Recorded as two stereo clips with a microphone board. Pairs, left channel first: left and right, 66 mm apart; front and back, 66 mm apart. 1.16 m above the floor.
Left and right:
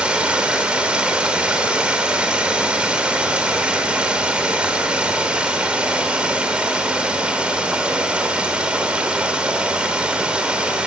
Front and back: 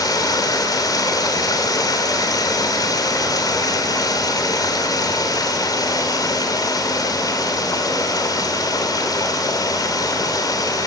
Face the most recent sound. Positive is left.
turn(degrees=-15)